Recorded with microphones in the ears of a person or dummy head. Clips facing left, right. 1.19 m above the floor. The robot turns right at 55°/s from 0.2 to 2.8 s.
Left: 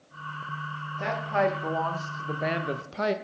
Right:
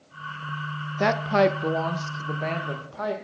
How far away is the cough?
No cough in this recording.